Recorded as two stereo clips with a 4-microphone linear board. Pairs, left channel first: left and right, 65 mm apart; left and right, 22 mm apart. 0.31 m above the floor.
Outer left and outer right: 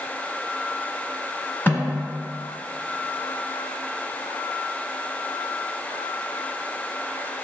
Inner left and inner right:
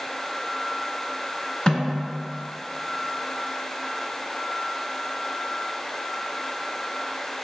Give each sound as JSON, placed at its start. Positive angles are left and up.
{"t": 1.7, "sound": "a snare drum", "side_deg": 30, "distance_m": 1.4}